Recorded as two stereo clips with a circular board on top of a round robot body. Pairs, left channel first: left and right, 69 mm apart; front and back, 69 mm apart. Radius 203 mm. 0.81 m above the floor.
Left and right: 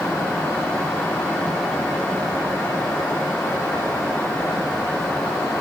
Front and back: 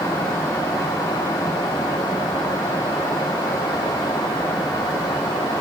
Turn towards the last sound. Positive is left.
No sound to turn to.